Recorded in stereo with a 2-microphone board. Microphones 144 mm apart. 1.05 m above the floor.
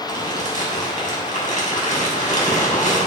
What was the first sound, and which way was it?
Crumpling, 65° left (ahead or behind).